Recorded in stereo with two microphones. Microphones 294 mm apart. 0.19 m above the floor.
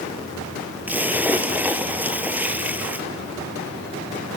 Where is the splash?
5° right (ahead or behind), 1.1 m.